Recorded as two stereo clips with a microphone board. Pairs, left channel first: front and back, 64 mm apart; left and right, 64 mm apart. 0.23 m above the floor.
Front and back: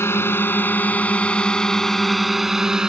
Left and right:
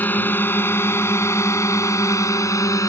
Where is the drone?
35° left; by 2.9 s 105° left.